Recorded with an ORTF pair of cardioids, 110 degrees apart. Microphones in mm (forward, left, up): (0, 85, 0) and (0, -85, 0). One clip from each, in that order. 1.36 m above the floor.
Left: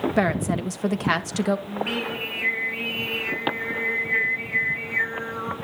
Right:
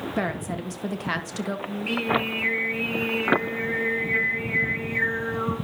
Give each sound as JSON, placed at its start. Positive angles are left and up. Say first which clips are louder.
{"t": 0.2, "sound": "a woman speaking", "louder": "left 3 dB", "azimuth_deg": 35, "distance_m": 1.3}
{"t": 1.7, "sound": "singing", "louder": "right 2 dB", "azimuth_deg": 10, "distance_m": 7.0}